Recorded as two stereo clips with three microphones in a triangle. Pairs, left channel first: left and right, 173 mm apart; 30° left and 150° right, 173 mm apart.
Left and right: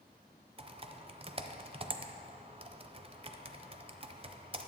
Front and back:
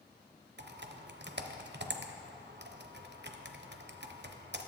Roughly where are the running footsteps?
No running footsteps in this recording.